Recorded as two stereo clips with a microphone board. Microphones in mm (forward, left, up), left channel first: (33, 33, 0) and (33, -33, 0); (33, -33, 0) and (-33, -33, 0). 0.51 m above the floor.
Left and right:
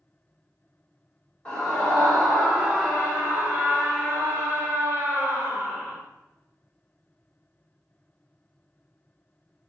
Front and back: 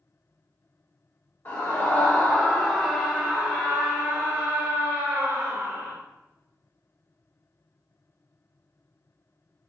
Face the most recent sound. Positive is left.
turn(degrees=-150)